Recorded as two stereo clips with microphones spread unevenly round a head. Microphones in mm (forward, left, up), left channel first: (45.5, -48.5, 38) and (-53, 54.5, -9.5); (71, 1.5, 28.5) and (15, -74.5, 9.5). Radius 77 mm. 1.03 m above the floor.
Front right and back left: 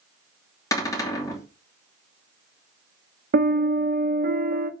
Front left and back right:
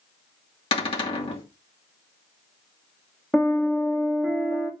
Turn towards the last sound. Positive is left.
turn(degrees=145)